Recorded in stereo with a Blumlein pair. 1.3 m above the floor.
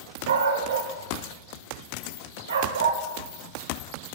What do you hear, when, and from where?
0.3 s a dog barking: 65° right, 2 m